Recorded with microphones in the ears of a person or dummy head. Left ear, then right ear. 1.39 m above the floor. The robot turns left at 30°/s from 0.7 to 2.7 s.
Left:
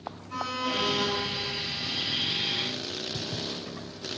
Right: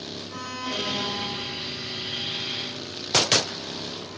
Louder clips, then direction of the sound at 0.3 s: Left 3 dB; 5° right (ahead or behind).